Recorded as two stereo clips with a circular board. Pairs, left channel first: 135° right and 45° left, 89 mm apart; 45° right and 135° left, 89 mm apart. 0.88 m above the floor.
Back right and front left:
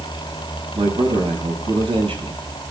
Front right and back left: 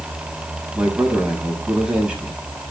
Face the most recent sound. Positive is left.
turn(degrees=55)